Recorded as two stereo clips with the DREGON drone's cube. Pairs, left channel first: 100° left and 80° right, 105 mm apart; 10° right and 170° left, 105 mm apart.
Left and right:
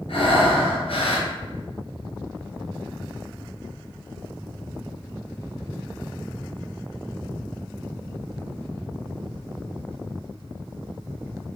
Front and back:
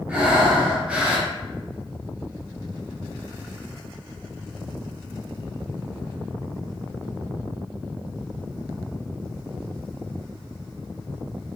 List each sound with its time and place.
0.1 s breathing: 95° left, 1.2 m